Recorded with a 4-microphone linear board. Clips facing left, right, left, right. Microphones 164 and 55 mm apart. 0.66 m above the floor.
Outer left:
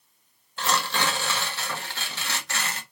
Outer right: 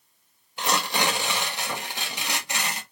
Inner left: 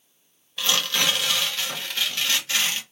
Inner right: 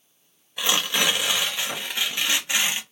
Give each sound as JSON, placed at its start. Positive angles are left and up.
{"t": 0.6, "sound": "tearing paper", "side_deg": -15, "distance_m": 0.5}